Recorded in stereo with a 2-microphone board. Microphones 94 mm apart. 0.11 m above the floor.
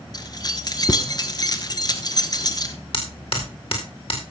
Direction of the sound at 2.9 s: 60° left (ahead or behind).